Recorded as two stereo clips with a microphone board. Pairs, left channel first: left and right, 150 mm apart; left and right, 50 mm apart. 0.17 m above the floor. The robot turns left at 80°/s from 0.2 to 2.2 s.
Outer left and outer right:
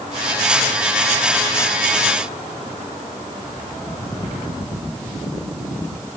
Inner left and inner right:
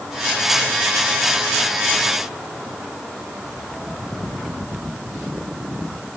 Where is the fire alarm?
No fire alarm in this recording.